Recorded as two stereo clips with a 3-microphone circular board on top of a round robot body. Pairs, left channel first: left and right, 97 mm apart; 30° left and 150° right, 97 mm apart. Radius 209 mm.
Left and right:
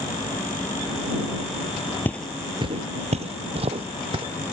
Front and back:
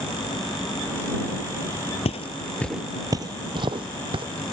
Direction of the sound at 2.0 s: 20° left.